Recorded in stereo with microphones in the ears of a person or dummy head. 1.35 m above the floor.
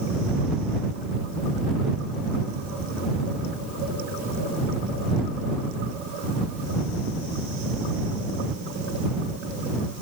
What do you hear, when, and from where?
Only background noise.